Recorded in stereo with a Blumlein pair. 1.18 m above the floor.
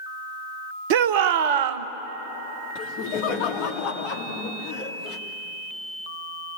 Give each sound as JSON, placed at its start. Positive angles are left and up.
{"t": 0.9, "sound": "a shout", "azimuth_deg": -50, "distance_m": 1.0}
{"t": 2.8, "sound": "laughter", "azimuth_deg": 45, "distance_m": 2.5}